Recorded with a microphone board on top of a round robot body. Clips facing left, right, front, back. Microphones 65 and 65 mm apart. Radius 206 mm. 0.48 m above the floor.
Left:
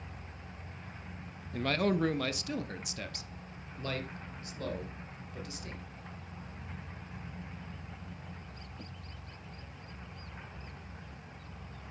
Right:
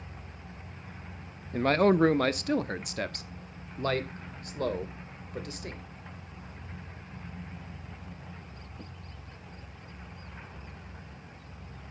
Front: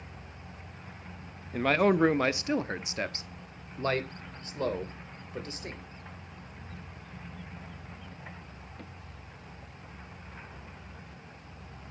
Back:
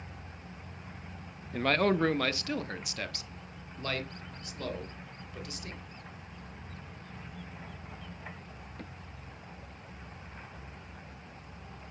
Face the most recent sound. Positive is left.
turn(degrees=-55)